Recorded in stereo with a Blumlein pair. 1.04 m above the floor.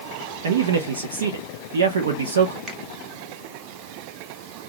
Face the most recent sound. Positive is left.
turn(degrees=-25)